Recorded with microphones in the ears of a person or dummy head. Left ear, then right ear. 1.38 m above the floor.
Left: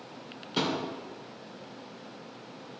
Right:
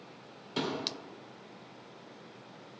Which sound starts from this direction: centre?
A thud, at 0.6 s.